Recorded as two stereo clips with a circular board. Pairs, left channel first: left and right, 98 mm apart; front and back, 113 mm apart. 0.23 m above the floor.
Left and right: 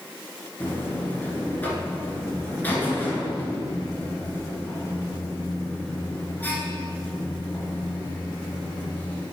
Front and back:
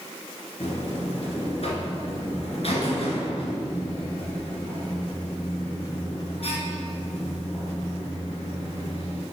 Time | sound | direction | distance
0.6 | a buzzer | 20° left | 1.8 m